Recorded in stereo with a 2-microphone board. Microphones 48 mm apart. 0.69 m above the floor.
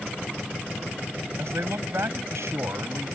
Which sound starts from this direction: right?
A man speaking, at 1.4 s.